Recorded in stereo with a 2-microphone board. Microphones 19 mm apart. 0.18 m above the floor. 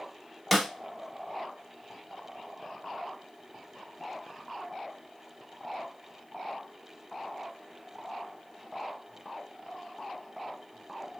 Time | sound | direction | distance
0.5 | a snare drum | 5° right (ahead or behind) | 0.8 m